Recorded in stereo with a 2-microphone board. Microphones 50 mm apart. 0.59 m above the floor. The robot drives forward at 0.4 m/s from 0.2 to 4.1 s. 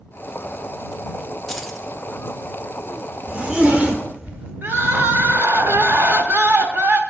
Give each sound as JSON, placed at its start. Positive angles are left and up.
{"t": 1.5, "sound": "keys jangling", "side_deg": 5, "distance_m": 1.0}
{"t": 3.3, "sound": "a zipper", "side_deg": -30, "distance_m": 1.1}
{"t": 4.6, "sound": "crying", "side_deg": -55, "distance_m": 0.9}